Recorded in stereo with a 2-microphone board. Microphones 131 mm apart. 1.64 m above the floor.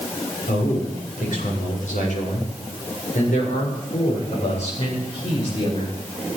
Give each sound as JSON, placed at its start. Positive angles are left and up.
{"t": 0.5, "sound": "a man speaking", "side_deg": 85, "distance_m": 7.0}